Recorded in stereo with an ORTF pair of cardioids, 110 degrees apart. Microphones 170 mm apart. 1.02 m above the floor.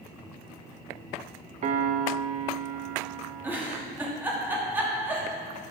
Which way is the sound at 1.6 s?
45° right.